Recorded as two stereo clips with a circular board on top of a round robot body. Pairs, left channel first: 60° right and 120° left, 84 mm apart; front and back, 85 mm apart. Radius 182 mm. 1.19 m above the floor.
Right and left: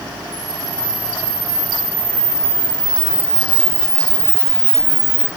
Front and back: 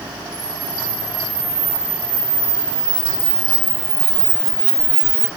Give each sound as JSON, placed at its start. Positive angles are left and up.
{"t": 0.3, "sound": "a camera shutter", "azimuth_deg": 155, "distance_m": 8.0}